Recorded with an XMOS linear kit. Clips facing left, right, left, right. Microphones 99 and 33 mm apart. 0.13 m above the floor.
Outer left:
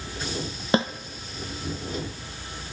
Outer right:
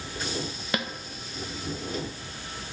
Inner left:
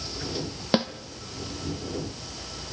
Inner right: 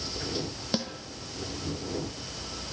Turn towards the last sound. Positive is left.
turn(degrees=30)  # may be behind; listen again after turning